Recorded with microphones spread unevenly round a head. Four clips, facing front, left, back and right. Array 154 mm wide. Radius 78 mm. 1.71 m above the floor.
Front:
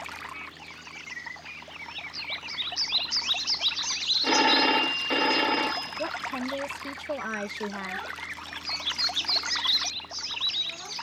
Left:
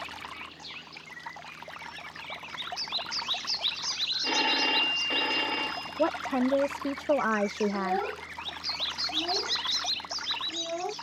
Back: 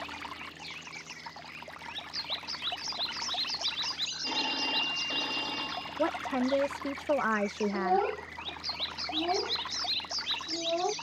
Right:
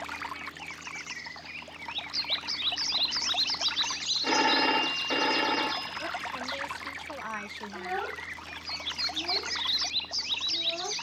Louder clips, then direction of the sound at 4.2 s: Right 4 dB, front 13 dB; 15° right.